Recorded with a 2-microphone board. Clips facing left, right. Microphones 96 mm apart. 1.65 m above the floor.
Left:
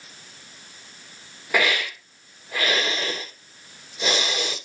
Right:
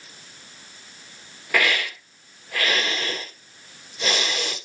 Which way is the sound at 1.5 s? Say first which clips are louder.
Even; 15° left (ahead or behind).